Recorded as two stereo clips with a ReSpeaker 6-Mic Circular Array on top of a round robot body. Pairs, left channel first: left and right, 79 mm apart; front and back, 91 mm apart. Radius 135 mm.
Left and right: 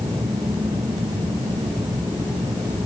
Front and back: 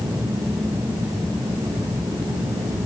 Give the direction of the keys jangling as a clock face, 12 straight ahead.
No keys jangling in this recording.